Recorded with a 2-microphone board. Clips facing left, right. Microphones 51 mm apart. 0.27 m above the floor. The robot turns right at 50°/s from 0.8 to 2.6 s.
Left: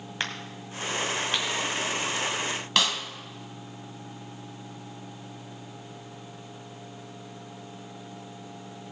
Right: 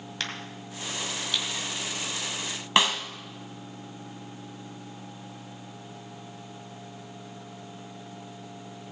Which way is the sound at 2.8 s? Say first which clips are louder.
Right 3 dB; 25° right (ahead or behind).